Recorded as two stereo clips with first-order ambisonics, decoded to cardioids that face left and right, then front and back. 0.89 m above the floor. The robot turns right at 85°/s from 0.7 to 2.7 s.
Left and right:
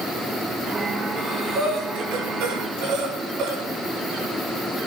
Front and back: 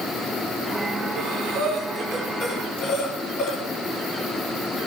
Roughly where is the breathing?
Behind.